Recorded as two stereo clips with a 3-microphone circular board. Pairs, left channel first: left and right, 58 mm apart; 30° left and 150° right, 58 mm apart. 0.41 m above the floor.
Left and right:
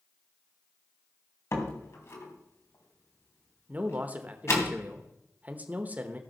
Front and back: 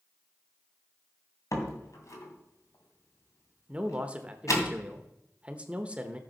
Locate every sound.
1.5 s a door slam: 50° left, 2.5 m
3.7 s a man speaking: 110° right, 0.9 m